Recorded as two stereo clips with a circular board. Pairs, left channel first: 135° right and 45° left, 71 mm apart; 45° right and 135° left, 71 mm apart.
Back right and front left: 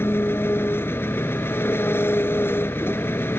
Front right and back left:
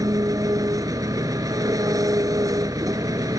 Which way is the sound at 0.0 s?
170° left.